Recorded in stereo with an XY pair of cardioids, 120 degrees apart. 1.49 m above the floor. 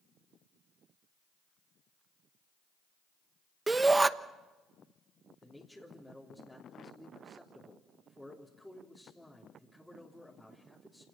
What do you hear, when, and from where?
3.7 s a shout: 15° right, 1.1 m
5.4 s a man speaking: 5° left, 3.5 m